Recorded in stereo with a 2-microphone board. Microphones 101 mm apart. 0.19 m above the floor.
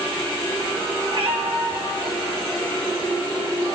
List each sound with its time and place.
1.1 s a cat meowing: 55° right (ahead or behind), 3 m